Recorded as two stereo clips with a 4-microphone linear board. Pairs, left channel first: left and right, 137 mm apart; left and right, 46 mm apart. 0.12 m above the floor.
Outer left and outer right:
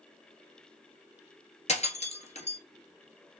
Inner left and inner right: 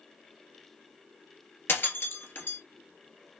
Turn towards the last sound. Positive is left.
turn(degrees=50)  # may be behind; listen again after turning